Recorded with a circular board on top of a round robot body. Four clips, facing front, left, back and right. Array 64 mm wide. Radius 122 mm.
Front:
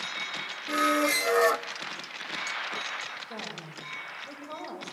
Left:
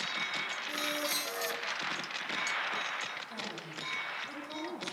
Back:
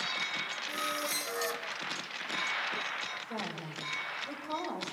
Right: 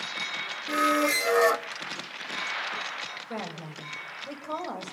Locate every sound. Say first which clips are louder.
0.7 s a squeak: right 15 dB, front 13 dB; 50° right, 0.6 m
3.3 s a woman speaking: right 5 dB, back 1 dB; 90° right, 6.5 m